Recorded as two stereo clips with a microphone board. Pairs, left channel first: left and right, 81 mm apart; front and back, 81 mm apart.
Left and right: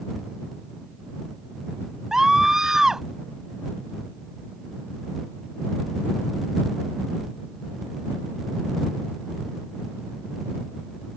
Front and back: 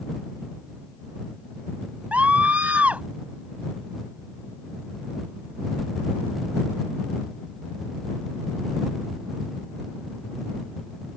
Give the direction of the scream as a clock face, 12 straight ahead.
5 o'clock.